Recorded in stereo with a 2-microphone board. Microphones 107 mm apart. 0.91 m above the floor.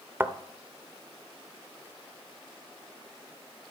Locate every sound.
0.2 s a thud: 20° right (ahead or behind), 0.6 m